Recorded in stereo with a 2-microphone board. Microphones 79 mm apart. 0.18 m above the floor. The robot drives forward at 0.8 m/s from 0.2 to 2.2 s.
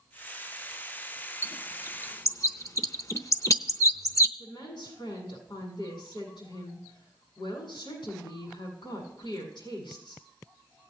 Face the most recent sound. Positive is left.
turn(degrees=70)  # may be behind; listen again after turning